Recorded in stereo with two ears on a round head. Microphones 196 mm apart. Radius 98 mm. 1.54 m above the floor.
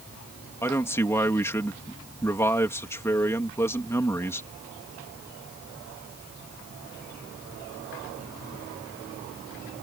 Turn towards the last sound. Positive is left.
turn(degrees=10)  # may be behind; listen again after turning